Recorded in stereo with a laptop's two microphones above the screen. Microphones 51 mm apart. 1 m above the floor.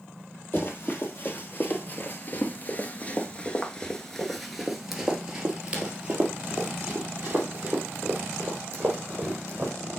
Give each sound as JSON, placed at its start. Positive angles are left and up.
{"t": 0.5, "sound": "running footsteps", "side_deg": 45, "distance_m": 1.9}